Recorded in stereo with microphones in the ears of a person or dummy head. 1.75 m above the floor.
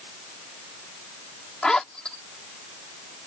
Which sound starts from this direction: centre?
A zipper, at 1.6 s.